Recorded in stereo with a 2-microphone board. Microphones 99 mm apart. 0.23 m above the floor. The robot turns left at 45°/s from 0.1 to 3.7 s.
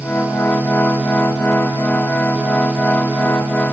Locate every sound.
Only background noise.